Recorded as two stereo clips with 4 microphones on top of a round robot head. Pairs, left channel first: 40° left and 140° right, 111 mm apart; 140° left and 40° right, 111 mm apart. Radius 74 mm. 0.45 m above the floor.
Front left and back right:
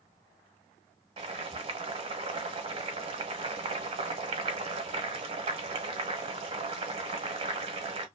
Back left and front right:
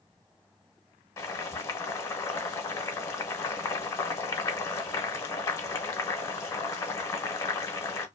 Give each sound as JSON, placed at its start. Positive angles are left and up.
{"t": 1.2, "sound": "boiling", "azimuth_deg": -160, "distance_m": 1.0}